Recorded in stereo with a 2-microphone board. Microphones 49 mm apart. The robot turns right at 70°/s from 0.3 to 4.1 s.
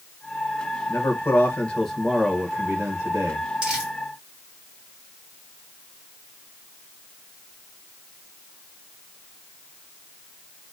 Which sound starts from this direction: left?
A man speaking, at 0.9 s.